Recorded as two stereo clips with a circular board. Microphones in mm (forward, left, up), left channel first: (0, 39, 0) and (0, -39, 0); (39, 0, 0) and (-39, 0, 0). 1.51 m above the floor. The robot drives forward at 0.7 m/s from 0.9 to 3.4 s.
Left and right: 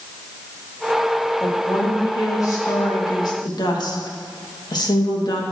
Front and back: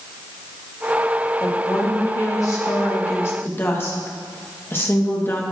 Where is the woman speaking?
35° left, 3 m; by 5.4 s 60° left, 2 m.